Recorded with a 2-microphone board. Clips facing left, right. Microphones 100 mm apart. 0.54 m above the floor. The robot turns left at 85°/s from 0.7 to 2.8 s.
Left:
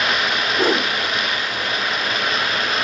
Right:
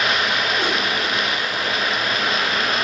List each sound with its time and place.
0.6 s a whoosh: 40° left (ahead or behind), 1.3 m; by 0.9 s 30° left (ahead or behind), 1.3 m